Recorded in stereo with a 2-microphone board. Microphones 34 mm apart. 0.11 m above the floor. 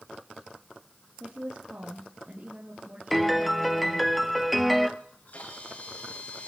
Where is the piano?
Centre (ahead or behind), 1.1 m.